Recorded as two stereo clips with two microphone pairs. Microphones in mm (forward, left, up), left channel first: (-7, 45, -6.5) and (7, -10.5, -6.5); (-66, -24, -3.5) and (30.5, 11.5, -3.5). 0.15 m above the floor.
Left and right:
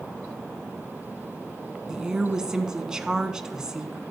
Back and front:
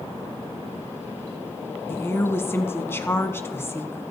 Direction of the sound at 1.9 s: 140° right.